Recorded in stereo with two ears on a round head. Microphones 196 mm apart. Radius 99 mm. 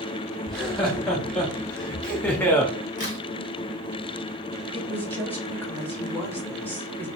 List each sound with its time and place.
0.5 s laughter: centre (ahead or behind), 2.5 m; by 2.7 s 10° left (ahead or behind), 0.8 m
3.0 s a crack: 40° left (ahead or behind), 2 m
4.7 s a woman speaking: 10° left (ahead or behind), 1.4 m